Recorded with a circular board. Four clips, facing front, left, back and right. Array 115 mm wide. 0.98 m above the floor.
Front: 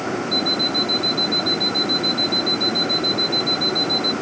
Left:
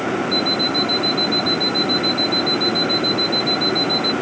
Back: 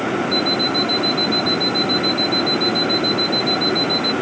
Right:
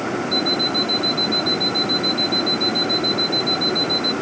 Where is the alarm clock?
70° right.